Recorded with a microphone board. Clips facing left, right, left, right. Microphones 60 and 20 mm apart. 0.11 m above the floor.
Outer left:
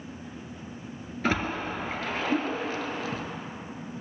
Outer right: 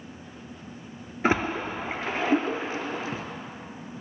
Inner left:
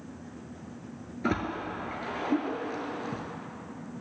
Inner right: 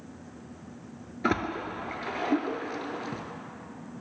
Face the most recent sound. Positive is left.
turn(degrees=-25)  # may be behind; listen again after turning